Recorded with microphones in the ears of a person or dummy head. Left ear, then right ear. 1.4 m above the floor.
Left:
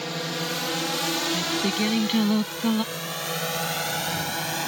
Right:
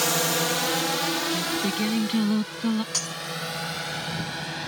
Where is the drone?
45° right (ahead or behind); by 4.7 s 35° left (ahead or behind).